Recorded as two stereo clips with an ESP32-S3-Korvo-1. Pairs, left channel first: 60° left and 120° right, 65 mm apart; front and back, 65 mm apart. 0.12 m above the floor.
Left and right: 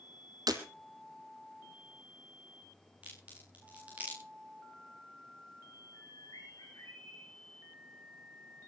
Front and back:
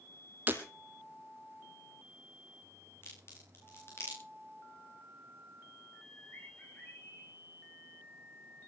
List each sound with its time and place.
0.5 s breaking glass: 120° right, 2 m
3.0 s a crack: 50° right, 9.5 m
5.9 s a bird: 50° left, 7.5 m